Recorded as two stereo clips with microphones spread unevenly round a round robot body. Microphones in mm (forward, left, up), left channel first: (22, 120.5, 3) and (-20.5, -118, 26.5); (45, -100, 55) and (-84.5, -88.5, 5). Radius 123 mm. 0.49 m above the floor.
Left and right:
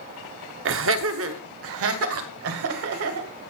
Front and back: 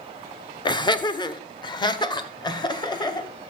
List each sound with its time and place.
0.7 s laughter: 75° right, 1.2 m; by 3.3 s 70° right, 2.5 m